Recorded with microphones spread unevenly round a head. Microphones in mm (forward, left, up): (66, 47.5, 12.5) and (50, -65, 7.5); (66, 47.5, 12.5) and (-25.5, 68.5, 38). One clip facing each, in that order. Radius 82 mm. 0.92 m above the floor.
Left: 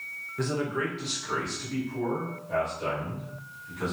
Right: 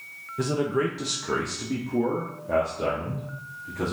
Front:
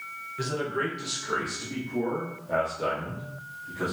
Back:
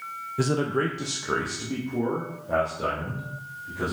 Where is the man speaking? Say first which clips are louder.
Right 4 dB, back 5 dB; 165° right, 0.7 m; by 3.9 s 110° right, 2.5 m.